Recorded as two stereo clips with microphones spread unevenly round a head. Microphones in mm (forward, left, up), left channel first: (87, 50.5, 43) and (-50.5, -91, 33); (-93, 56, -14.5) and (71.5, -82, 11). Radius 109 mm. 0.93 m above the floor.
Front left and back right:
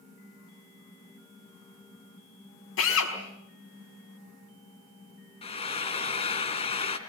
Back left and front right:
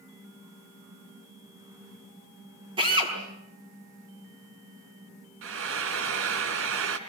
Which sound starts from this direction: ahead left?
A drill, at 2.8 s.